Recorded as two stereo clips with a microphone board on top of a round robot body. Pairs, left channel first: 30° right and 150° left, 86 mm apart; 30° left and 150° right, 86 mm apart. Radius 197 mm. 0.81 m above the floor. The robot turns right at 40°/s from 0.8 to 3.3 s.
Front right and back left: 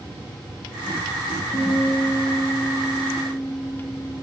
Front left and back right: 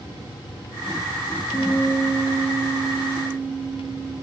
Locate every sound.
1.5 s a guitar: 45° right, 3 m; by 4.1 s 25° left, 3 m